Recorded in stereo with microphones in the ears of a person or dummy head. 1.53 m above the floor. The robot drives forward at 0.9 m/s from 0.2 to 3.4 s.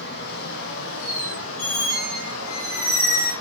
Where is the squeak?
75° left (ahead or behind), 7.5 m.